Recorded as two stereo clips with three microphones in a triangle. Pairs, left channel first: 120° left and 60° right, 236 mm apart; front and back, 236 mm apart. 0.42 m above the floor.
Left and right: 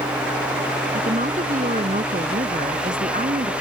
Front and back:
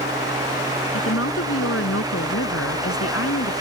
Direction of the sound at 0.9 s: 5° right.